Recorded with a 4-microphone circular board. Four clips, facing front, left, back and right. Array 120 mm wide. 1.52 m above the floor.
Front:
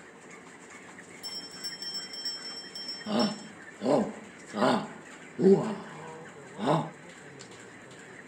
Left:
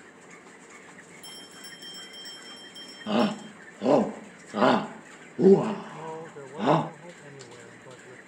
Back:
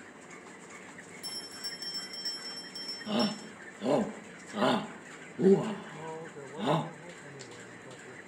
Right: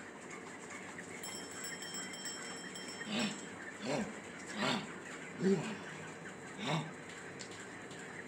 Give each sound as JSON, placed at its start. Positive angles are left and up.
{"t": 1.2, "sound": "a bell", "azimuth_deg": -125}
{"t": 3.1, "sound": "a shout", "azimuth_deg": 80}
{"t": 5.9, "sound": "a man speaking", "azimuth_deg": 105}